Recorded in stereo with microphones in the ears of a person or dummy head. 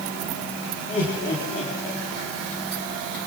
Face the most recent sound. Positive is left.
turn(degrees=45)  # may be behind; listen again after turning